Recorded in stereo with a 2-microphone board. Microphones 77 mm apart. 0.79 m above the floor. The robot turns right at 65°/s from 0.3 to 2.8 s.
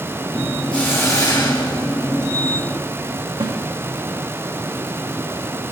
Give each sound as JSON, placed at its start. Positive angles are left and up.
{"t": 0.7, "sound": "a hiss", "azimuth_deg": 15, "distance_m": 3.0}
{"t": 3.4, "sound": "a snare drum", "side_deg": -55, "distance_m": 1.4}